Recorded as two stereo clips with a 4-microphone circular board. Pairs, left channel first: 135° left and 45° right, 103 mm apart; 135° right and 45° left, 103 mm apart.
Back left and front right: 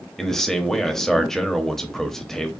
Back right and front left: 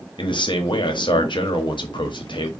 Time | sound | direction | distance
0.2 | a man speaking | 140° right | 0.9 m